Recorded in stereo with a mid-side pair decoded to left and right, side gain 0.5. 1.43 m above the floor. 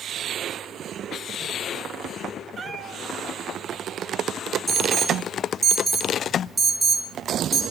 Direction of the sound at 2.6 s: 40° right.